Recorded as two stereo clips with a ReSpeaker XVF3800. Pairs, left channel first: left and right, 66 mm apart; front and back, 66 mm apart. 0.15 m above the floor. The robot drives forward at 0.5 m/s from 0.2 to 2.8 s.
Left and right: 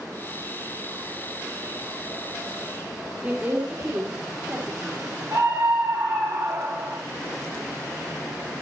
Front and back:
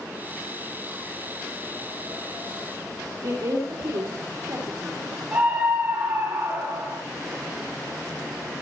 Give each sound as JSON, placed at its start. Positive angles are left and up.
{"t": 3.2, "sound": "a woman speaking", "azimuth_deg": -150, "distance_m": 4.0}
{"t": 5.3, "sound": "a scream", "azimuth_deg": -110, "distance_m": 3.0}